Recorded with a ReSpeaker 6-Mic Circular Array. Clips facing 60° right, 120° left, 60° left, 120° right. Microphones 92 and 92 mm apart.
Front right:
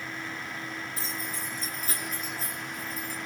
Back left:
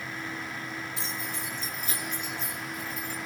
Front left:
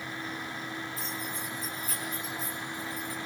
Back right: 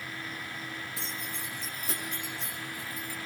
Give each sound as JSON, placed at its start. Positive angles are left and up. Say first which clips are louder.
{"t": 1.0, "sound": "keys jangling", "louder": "even, front left 2 dB", "azimuth_deg": -110, "distance_m": 6.5}